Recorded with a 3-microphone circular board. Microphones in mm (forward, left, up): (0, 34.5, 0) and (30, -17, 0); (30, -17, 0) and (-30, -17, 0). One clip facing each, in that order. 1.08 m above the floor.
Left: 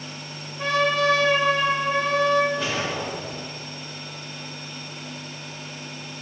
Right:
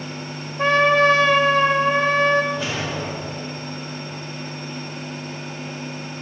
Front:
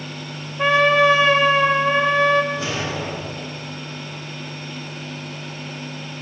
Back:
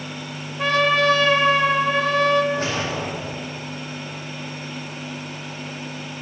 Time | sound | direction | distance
0.6 | a trumpet | 65° right | 0.5 m
2.5 | a whoosh | 155° right | 2 m